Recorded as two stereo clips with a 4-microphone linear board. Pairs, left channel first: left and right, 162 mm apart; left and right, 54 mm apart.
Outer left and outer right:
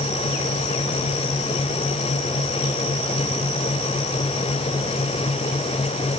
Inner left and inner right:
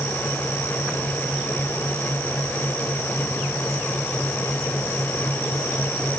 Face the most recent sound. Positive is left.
No sound to turn to.